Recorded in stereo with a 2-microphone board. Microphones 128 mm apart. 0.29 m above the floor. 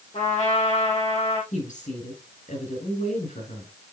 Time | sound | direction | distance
0.1 | a trumpet | 65° left (ahead or behind) | 3.5 m
1.5 | a woman speaking | 70° left (ahead or behind) | 6 m